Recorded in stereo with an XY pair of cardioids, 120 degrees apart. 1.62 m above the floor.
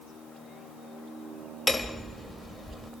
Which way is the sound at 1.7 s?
20° left.